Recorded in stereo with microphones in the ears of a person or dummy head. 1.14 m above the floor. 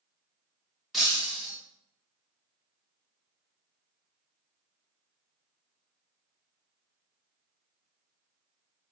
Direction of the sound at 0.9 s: 5° right (ahead or behind).